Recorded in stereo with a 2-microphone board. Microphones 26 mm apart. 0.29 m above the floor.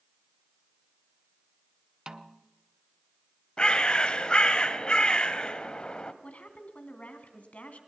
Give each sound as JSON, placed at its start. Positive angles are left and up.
{"t": 2.1, "sound": "a snare drum", "side_deg": -30, "distance_m": 0.6}
{"t": 3.6, "sound": "a bird", "side_deg": 35, "distance_m": 1.0}
{"t": 6.2, "sound": "a woman speaking", "side_deg": 60, "distance_m": 2.5}